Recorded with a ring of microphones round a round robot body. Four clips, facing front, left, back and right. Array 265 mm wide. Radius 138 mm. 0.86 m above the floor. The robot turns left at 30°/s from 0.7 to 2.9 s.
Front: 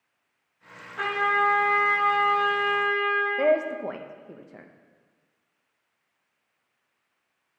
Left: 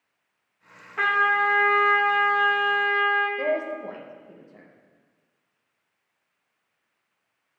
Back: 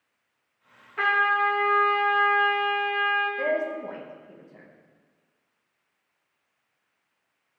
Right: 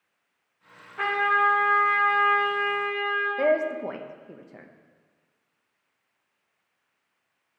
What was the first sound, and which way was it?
A trumpet, 105° left.